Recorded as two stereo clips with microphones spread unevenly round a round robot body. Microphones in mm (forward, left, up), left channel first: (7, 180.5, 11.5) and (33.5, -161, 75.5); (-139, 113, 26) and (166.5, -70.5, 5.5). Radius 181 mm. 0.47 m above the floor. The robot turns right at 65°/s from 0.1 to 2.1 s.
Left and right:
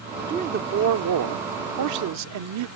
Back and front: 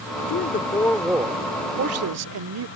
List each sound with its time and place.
0.3 s a man speaking: 165° right; by 2.7 s 50° right